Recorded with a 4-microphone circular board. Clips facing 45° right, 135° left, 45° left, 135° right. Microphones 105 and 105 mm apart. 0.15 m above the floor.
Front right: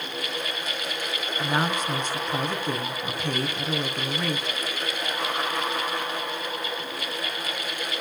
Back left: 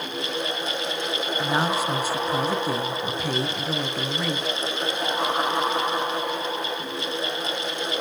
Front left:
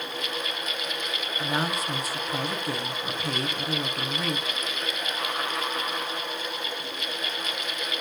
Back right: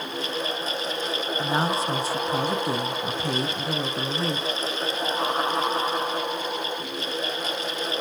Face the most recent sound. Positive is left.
turn(degrees=-150)